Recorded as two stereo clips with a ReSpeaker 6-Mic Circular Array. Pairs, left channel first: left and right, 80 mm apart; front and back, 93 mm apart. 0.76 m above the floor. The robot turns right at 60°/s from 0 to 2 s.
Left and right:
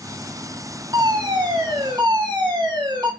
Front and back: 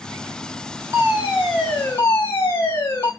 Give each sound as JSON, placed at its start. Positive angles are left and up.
{"t": 0.9, "sound": "a fire alarm", "azimuth_deg": -120, "distance_m": 7.0}